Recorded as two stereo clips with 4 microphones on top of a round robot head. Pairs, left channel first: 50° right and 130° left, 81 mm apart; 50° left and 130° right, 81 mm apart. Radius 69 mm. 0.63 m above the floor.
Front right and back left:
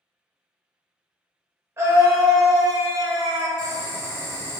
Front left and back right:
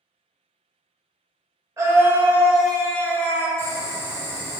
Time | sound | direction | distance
1.8 | a scream | straight behind | 0.9 m
3.6 | boiling | 95° right | 1.6 m